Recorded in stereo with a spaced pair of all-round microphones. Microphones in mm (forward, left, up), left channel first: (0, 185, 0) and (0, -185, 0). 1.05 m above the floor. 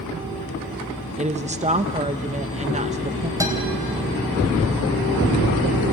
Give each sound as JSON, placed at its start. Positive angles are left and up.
{"t": 1.2, "sound": "a woman speaking", "side_deg": -20, "distance_m": 0.6}
{"t": 3.4, "sound": "a guitar", "side_deg": -10, "distance_m": 3.0}